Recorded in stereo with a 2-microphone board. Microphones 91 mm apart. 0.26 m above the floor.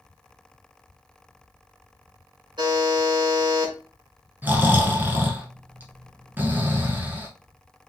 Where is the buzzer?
60° right (ahead or behind), 1.7 m.